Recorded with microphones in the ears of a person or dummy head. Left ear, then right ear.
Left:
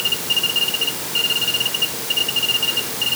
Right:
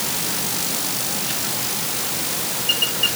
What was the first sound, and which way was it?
Only background noise.